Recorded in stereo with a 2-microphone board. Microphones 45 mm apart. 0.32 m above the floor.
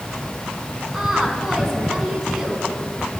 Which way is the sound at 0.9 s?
10° right (ahead or behind).